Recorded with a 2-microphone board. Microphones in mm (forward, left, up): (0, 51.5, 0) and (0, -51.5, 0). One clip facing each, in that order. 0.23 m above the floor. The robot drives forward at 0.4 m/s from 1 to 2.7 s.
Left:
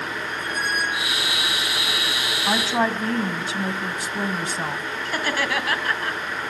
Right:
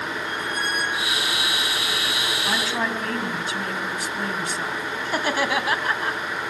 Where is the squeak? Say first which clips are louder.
Left 1 dB; 5° left (ahead or behind), 4 m.